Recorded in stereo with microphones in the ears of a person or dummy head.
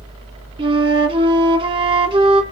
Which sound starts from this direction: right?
A flute, at 0.6 s.